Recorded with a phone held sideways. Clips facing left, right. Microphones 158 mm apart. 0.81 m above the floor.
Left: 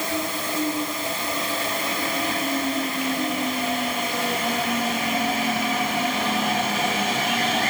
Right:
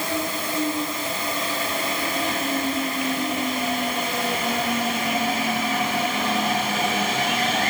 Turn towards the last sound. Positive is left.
No sound to turn to.